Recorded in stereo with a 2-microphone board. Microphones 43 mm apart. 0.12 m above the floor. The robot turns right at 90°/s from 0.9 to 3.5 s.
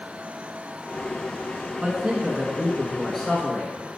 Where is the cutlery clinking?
I don't hear cutlery clinking.